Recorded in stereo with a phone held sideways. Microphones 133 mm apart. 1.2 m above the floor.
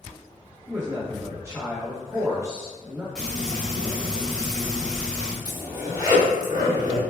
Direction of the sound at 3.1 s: 5° left (ahead or behind).